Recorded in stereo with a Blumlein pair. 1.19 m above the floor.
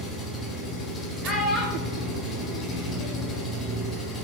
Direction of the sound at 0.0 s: 20° left.